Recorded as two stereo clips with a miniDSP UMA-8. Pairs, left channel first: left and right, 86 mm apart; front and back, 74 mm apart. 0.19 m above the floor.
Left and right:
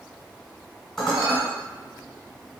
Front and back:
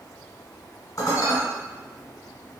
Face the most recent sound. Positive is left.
turn(degrees=5)